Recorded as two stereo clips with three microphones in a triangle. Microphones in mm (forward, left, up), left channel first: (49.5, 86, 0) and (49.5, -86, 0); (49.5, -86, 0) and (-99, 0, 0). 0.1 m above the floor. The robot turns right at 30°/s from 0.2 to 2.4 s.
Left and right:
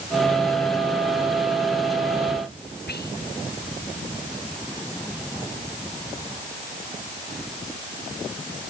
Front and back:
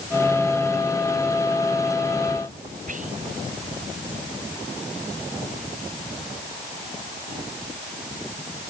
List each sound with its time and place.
2.9 s whispering: 110° left